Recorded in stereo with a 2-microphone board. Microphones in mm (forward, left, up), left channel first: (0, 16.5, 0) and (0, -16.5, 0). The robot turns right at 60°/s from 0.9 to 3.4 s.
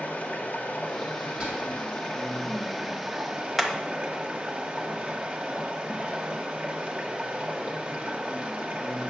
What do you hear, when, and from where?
0.0 s running water: 60° left, 1.6 m; by 9.1 s 150° right, 1.6 m
1.4 s whispering: 15° right, 1.5 m; by 1.9 s 15° left, 1.5 m
3.6 s hammering: 5° left (ahead or behind), 1.1 m